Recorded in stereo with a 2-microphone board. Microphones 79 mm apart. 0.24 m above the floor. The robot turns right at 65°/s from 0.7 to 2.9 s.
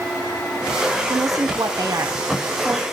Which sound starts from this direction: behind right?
A woman speaking, at 1.1 s.